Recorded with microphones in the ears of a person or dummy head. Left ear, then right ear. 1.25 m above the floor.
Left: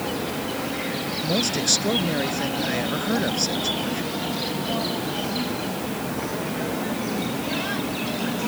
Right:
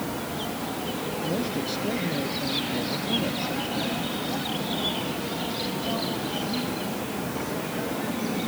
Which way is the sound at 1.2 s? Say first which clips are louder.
Left 7 dB; 65° left (ahead or behind).